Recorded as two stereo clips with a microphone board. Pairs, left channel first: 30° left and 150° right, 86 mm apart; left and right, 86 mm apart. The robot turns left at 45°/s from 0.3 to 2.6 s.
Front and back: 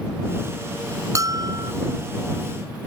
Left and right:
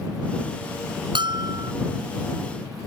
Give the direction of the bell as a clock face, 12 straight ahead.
3 o'clock.